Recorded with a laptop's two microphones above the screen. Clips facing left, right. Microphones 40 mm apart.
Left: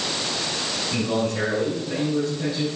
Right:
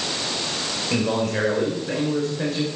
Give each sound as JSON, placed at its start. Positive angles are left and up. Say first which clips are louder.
{"t": 0.9, "sound": "a man speaking", "louder": "right 2 dB", "side_deg": -75, "distance_m": 4.5}